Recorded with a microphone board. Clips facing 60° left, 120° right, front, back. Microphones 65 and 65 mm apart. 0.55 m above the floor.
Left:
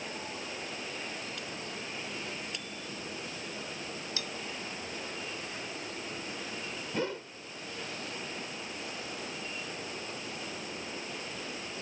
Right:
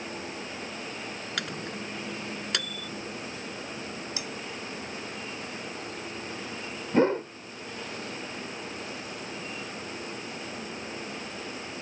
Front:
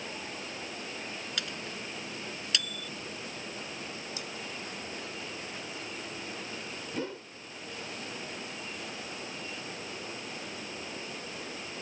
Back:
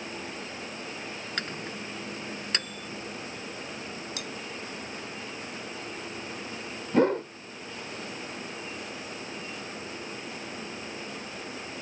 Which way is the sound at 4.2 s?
170° left.